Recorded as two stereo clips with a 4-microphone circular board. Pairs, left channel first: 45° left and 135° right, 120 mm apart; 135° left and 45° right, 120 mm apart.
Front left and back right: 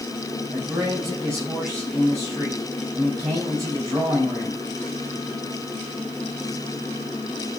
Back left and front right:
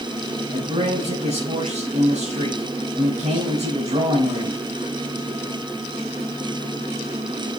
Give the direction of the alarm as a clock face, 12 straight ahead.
No alarm in this recording.